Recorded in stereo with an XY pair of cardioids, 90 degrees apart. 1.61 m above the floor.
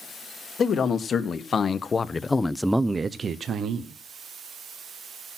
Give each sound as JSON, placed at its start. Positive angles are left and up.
{"t": 0.6, "sound": "a man speaking", "azimuth_deg": 60, "distance_m": 1.7}